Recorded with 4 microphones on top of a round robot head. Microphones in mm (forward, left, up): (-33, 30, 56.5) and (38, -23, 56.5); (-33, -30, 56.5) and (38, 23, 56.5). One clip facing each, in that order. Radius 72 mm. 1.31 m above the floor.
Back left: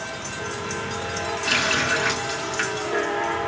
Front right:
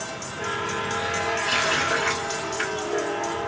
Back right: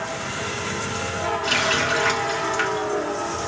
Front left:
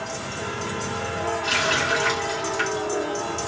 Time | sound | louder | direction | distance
1.4 | a running tap | even, back right 1 dB | 170° left | 2.5 m